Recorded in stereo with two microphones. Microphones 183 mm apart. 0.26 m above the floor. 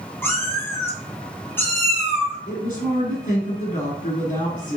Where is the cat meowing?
10° left (ahead or behind), 1.8 m.